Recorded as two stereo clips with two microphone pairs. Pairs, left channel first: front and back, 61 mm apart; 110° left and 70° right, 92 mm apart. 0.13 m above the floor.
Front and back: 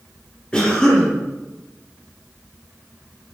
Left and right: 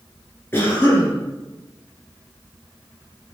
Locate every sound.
0.5 s a cough: 65° left, 1.9 m